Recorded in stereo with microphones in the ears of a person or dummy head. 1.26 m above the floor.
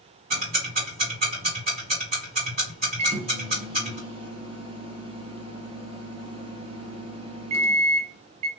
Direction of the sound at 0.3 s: 45° right (ahead or behind).